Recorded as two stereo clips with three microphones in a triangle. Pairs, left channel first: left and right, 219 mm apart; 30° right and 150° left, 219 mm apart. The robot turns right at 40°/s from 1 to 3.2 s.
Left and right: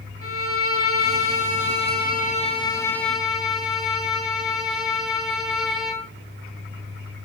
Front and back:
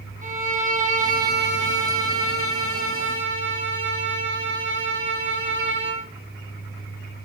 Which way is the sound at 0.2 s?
95° left.